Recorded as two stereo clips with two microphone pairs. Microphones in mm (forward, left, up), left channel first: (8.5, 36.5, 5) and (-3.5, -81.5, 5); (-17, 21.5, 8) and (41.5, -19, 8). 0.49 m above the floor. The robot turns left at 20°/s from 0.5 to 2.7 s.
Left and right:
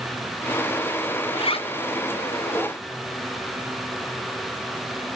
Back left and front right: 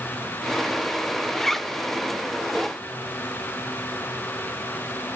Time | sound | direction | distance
1.3 | a zipper | 60° left | 0.6 m